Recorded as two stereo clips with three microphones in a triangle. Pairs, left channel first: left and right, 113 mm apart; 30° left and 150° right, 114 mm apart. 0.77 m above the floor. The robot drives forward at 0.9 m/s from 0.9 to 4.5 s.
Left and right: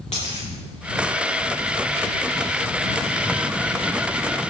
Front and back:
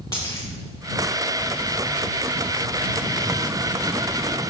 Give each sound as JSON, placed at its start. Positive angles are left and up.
{"t": 0.1, "sound": "a dropped coin", "azimuth_deg": 80, "distance_m": 3.5}